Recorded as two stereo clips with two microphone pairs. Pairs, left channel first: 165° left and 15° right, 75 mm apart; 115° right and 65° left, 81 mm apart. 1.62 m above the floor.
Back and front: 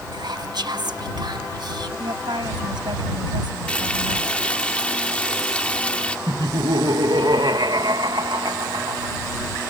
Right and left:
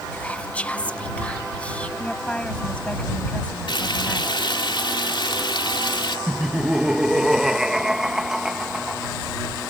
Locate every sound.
0.1 s whispering: 40° right
2.0 s a woman speaking: 40° right
3.7 s frying: 125° right
6.3 s laughter: 20° right